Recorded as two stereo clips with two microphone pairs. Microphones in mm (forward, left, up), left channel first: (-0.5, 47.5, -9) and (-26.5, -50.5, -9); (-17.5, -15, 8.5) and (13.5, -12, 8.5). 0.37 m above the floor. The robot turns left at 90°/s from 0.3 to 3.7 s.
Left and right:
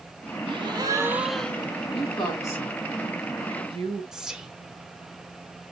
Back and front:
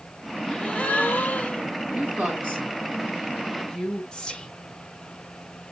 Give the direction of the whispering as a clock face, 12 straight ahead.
6 o'clock.